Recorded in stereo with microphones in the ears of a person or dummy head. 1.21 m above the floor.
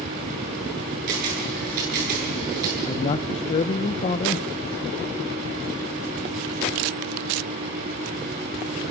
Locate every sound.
1.1 s a camera shutter: 45° right (ahead or behind), 9.5 m
2.9 s a man speaking: 30° left (ahead or behind), 0.7 m